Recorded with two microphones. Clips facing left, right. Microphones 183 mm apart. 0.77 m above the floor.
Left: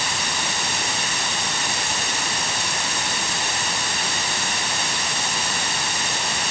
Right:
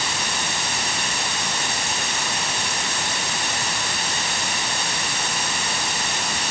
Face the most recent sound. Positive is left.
No sound to turn to.